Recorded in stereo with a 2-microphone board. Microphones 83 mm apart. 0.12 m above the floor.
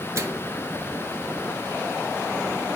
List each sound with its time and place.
0.1 s a microwave: 35° right (ahead or behind), 1.7 m